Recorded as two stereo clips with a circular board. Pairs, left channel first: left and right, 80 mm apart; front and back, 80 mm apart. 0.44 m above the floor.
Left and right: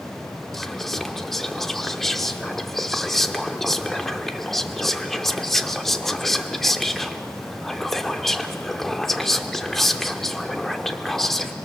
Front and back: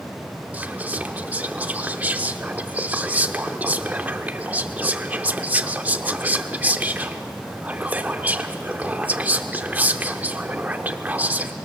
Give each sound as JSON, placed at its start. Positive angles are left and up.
{"t": 0.5, "sound": "whispering", "azimuth_deg": 170, "distance_m": 0.7}